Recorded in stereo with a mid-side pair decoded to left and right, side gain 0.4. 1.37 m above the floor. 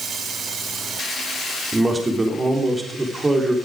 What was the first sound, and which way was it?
A man speaking, 25° right.